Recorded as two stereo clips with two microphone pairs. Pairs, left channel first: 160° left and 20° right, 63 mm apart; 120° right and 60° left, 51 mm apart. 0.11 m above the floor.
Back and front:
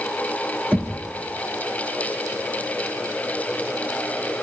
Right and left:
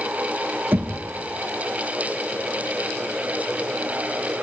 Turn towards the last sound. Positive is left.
turn(degrees=35)